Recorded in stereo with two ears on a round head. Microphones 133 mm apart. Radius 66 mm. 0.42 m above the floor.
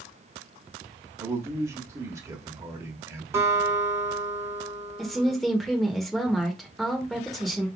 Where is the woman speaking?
Centre (ahead or behind), 1.1 m.